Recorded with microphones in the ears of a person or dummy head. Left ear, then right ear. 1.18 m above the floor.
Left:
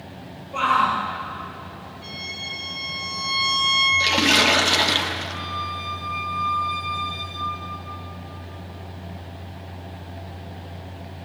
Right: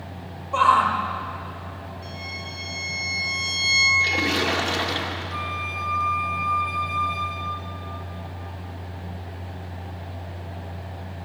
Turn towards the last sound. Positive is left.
turn(degrees=-30)  # may be behind; listen again after turning